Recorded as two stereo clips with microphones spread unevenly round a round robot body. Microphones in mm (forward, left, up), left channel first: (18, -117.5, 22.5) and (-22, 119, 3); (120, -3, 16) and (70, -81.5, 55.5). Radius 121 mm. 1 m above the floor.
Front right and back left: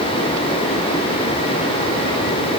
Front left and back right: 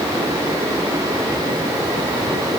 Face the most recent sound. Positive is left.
No sound to turn to.